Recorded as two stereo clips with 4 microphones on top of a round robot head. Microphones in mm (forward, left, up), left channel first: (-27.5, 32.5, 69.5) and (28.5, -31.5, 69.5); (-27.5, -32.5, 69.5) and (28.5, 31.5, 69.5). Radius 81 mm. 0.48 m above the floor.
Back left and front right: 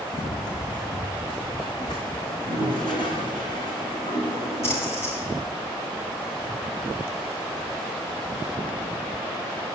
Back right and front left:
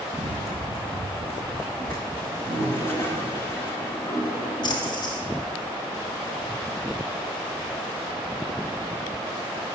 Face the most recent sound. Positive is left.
turn(degrees=-170)